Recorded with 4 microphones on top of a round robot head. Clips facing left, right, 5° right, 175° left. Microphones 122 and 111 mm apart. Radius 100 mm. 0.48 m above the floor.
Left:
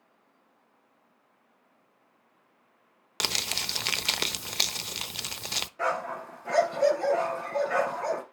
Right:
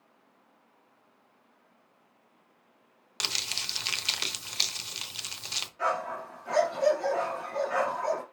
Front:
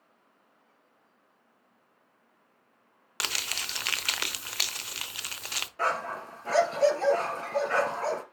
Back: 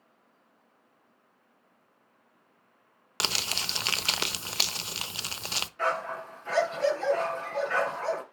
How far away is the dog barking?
About 2.5 m.